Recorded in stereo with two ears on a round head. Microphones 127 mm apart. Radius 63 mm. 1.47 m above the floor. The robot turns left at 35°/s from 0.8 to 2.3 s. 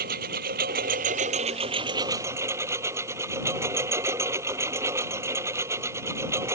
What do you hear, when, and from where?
0.0 s a lawn mower: 110° right; by 6.5 s 160° right